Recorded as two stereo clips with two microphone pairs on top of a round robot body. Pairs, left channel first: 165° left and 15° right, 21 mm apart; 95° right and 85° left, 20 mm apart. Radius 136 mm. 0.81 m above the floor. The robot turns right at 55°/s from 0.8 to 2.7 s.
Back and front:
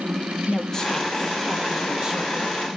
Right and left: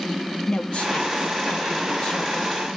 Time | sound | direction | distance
0.5 | a woman speaking | 130° right | 1.1 m